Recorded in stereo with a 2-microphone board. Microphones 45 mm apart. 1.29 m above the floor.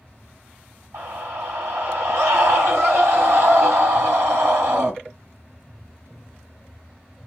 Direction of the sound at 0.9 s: 70° right (ahead or behind).